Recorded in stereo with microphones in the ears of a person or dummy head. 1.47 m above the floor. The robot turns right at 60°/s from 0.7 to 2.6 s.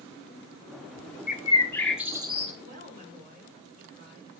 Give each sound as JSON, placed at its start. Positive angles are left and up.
{"t": 1.3, "sound": "a bird", "side_deg": 40, "distance_m": 0.7}
{"t": 2.6, "sound": "a woman speaking", "side_deg": -45, "distance_m": 5.0}